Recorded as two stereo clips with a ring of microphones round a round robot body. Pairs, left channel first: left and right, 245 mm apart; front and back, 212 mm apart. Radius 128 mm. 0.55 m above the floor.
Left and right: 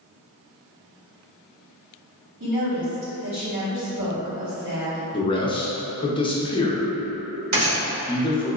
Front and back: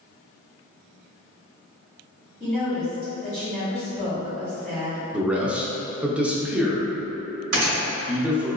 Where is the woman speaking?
120° right, 1.6 m.